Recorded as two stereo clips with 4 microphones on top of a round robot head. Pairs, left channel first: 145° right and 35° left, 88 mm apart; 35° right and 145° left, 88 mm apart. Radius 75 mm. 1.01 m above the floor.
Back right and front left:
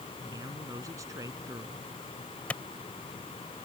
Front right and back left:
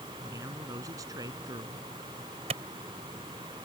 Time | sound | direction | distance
0.2 | a man speaking | 90° left | ?
2.5 | a clap | 140° left | ?